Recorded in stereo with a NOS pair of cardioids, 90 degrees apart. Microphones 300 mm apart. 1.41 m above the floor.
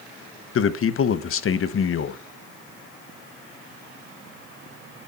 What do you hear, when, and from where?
0.6 s a man speaking: 45° left, 1.1 m